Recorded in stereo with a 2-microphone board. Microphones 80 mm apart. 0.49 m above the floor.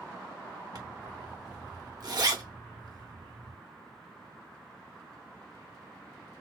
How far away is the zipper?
About 0.9 m.